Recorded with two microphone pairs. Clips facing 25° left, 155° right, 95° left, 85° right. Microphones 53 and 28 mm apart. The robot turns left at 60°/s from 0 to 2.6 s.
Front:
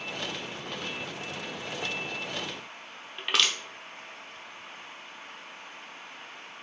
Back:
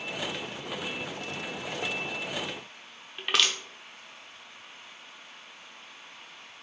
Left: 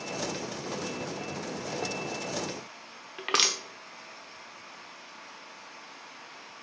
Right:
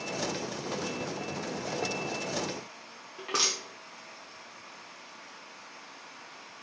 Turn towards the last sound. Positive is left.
turn(degrees=115)